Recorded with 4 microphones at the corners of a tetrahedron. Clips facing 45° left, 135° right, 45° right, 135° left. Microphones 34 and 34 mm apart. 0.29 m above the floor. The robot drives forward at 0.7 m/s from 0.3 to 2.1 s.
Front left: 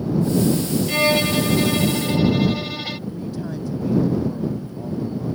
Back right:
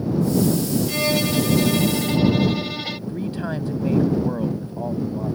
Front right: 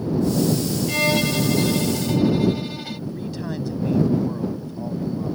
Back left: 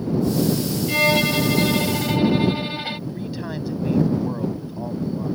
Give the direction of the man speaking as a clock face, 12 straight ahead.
5 o'clock.